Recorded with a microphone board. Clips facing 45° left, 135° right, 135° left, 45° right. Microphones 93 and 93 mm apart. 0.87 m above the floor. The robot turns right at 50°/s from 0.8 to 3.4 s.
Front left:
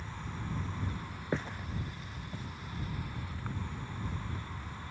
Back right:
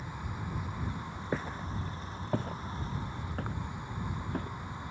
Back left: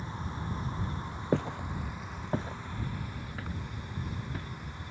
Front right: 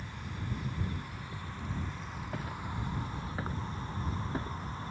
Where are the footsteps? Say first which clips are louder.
Even, back left 11 dB; 135° left; by 4.5 s 105° right.